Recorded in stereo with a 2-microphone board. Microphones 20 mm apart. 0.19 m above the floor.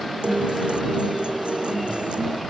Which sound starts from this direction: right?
A guitar, at 0.2 s.